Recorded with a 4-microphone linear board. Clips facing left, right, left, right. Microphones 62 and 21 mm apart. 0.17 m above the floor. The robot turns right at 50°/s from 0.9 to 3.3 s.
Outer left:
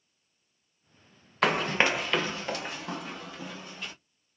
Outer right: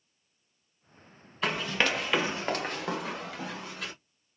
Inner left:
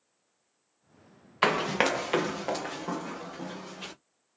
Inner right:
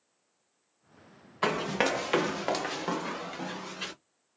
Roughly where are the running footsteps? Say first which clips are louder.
Outer left 4 dB, inner left 3 dB; left.